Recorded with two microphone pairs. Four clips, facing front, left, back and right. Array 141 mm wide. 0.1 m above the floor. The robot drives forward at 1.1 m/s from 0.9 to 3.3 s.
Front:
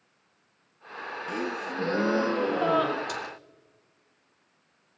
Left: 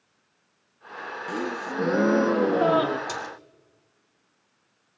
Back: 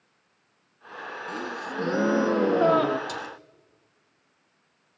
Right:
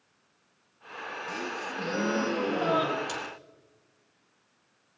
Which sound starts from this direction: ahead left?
A gasp, at 1.3 s.